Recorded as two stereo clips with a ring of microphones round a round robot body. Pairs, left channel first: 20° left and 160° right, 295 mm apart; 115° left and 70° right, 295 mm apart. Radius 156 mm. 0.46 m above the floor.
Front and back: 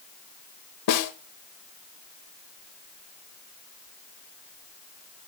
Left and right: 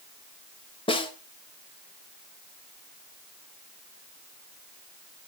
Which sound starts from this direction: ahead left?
A snare drum, at 0.9 s.